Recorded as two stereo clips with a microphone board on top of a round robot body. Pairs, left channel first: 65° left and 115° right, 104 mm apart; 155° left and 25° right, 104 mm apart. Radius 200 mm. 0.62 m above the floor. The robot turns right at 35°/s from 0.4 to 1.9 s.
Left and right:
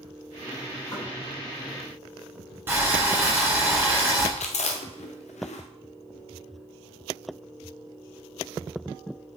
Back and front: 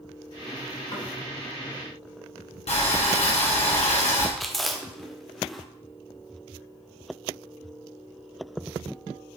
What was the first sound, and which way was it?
Knocking, 115° left.